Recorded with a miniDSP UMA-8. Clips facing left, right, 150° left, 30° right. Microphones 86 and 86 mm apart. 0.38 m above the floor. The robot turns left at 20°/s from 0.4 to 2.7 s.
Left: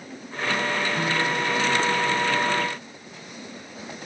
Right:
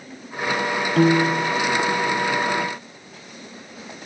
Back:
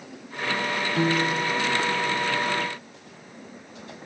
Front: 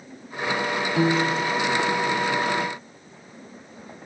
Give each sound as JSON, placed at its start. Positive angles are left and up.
{"t": 1.0, "sound": "a piano", "azimuth_deg": -110}